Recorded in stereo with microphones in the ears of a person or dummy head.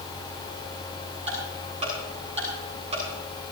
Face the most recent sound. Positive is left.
turn(degrees=-35)  # may be behind; listen again after turning